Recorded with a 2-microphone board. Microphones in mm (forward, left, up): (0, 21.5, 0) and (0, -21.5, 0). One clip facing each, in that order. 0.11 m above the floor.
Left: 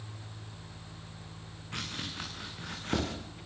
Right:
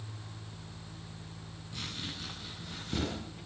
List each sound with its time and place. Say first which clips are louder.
1.7 s chopping: left 3 dB; 55° left (ahead or behind), 9 m